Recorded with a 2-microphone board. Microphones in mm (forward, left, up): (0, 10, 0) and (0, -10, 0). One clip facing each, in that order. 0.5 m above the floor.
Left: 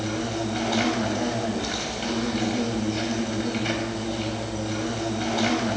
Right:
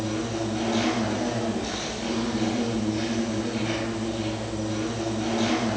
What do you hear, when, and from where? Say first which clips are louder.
0.0 s an insect: even; 40° left (ahead or behind), 4 m